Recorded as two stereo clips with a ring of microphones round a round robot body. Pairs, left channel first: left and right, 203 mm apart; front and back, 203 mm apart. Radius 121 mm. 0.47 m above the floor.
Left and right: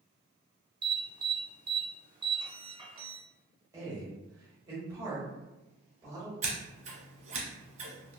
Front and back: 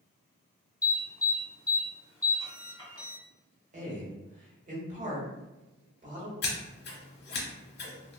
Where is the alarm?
55° right, 1.9 m.